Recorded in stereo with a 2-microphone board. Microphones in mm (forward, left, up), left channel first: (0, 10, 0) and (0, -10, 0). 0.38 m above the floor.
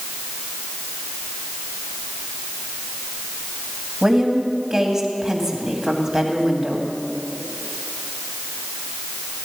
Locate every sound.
4.0 s a woman speaking: 30° right (ahead or behind), 1.9 m